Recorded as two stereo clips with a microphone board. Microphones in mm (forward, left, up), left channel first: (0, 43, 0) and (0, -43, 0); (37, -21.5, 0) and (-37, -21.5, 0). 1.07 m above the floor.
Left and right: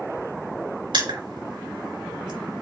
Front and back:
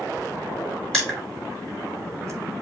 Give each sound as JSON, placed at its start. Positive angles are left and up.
{"t": 0.9, "sound": "crushing", "azimuth_deg": -80, "distance_m": 4.5}